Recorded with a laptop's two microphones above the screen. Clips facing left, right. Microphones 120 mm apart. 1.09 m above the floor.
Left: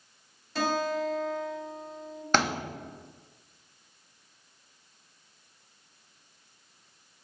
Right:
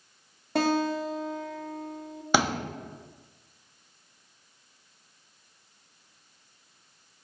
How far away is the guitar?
About 1.9 m.